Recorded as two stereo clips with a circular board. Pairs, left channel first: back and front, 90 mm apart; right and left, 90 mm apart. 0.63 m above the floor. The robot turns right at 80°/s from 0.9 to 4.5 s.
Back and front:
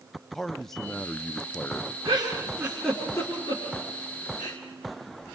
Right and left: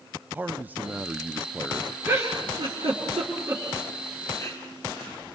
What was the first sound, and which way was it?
A man speaking, 100° left.